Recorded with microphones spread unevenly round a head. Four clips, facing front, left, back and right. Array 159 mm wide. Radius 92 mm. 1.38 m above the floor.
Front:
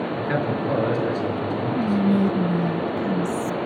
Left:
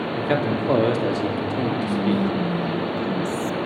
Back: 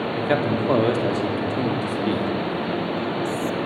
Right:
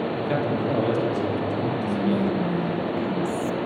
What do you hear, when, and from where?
0.2 s a man speaking: 125° left, 4.5 m
1.8 s whispering: 15° left, 1.0 m